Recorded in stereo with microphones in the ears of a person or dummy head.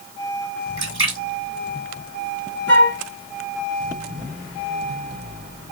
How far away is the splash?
About 2.5 m.